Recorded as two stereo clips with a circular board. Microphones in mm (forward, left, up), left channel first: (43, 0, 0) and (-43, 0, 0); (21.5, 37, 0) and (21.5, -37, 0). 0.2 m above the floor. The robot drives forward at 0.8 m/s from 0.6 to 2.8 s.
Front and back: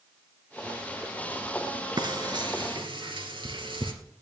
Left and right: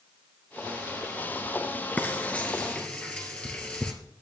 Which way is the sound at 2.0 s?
155° left.